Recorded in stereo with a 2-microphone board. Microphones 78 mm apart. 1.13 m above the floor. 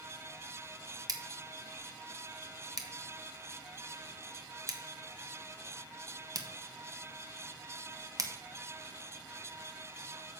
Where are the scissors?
50° right (ahead or behind), 1.0 m.